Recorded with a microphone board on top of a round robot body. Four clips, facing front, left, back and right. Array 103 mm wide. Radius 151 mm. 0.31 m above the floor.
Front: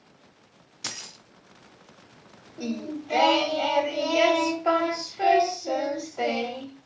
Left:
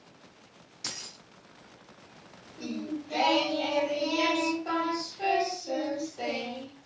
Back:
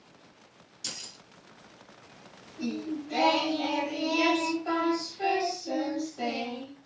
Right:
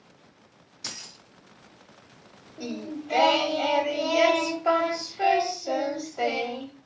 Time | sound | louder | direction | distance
0.8 | keys jangling | right 1 dB, front 5 dB | straight ahead | 0.7 m
2.6 | singing | right 1 dB, front 1 dB | 40° right | 0.9 m